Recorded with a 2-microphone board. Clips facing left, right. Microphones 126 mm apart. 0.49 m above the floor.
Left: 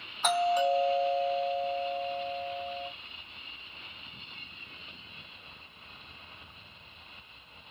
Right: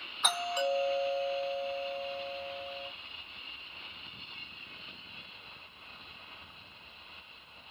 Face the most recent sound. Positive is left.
turn(degrees=40)  # may be behind; listen again after turning